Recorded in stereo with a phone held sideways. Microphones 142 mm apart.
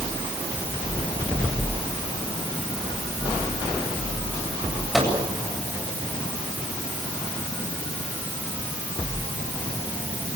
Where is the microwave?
Centre (ahead or behind), 8.5 m.